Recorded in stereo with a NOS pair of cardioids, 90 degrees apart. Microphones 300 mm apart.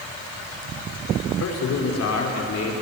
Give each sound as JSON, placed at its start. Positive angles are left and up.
{"t": 1.3, "sound": "a man speaking", "azimuth_deg": 60, "distance_m": 5.0}